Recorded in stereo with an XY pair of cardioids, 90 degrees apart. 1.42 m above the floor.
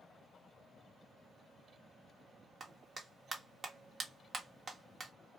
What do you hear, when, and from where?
2.6 s a clap: 45° right, 1.2 m